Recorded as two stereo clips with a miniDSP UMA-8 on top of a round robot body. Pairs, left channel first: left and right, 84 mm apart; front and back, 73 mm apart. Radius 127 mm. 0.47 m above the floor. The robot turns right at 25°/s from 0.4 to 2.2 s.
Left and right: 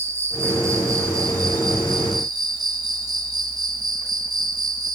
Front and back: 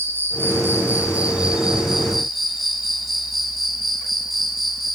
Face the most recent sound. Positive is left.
turn(degrees=-90)